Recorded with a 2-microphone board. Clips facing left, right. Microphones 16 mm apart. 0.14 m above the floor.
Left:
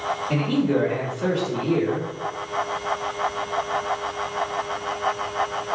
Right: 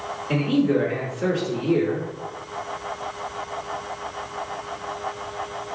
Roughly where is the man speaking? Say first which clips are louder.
Right 2 dB; right.